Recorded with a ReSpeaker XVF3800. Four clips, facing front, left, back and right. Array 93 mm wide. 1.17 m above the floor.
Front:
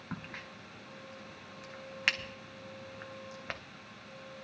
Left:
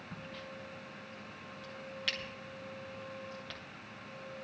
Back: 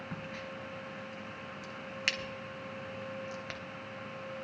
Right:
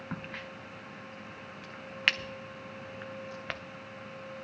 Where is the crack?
60° right, 0.6 m.